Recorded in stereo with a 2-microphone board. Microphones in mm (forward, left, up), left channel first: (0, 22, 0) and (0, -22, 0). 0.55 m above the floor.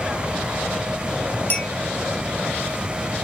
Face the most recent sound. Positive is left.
turn(degrees=45)  # may be behind; listen again after turning